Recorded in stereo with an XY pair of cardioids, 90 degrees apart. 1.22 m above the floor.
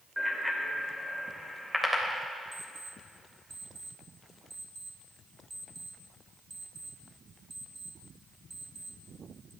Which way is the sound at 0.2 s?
Straight ahead.